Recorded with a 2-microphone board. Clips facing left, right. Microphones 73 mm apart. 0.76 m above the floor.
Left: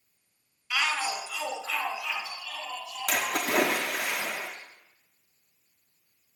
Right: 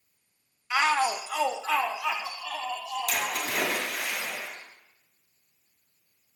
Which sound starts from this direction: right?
A shout, at 0.7 s.